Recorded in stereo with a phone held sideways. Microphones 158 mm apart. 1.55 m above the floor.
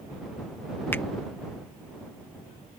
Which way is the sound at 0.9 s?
15° left (ahead or behind).